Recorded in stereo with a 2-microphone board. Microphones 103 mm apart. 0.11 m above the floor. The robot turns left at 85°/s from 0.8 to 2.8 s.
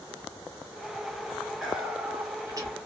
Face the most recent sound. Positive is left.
turn(degrees=-100)